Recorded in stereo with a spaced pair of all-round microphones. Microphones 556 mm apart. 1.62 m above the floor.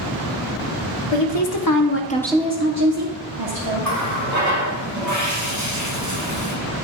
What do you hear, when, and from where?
1.1 s a woman speaking: 55° left (ahead or behind), 1.0 m; by 3.9 s 60° right (ahead or behind), 1.3 m
3.8 s a running tap: 35° right (ahead or behind), 1.3 m